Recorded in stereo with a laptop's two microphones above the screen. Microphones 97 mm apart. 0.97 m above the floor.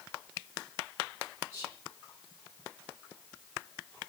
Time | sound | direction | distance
1.5 | whispering | 30° right (ahead or behind) | 2 m